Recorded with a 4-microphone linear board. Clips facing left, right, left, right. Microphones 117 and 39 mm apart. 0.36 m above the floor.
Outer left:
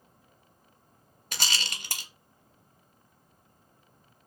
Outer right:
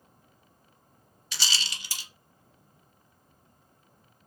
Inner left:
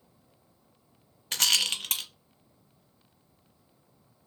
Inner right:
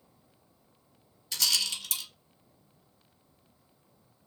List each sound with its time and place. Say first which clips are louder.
1.3 s a rattle: outer left 1 dB, inner left 4 dB; 55° left (ahead or behind), 0.5 m